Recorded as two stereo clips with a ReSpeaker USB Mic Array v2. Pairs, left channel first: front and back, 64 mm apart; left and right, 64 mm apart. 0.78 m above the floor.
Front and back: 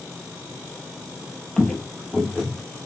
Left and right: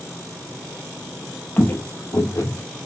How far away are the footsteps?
About 0.8 m.